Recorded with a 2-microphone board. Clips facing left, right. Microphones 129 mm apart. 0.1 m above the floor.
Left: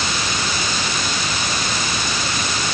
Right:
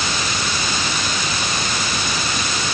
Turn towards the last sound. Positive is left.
No sound to turn to.